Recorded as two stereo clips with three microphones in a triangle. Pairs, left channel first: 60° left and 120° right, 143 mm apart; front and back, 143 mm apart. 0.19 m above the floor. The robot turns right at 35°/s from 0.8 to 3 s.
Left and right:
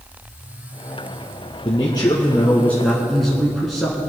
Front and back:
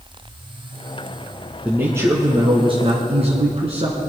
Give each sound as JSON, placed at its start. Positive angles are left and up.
{"t": 1.6, "sound": "a man speaking", "azimuth_deg": 105, "distance_m": 1.8}